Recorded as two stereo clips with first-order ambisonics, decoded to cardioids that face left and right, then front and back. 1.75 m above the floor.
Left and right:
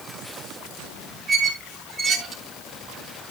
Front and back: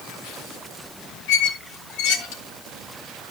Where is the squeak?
15° right, 3 m.